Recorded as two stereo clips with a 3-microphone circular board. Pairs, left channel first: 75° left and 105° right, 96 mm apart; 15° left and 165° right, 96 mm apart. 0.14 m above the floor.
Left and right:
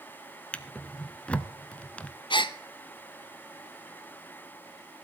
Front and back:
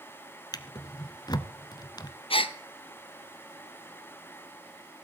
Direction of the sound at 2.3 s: 40° left.